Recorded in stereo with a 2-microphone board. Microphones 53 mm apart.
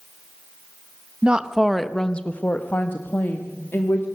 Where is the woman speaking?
20° right (ahead or behind), 0.9 m; by 4.0 s 50° left (ahead or behind), 1.8 m.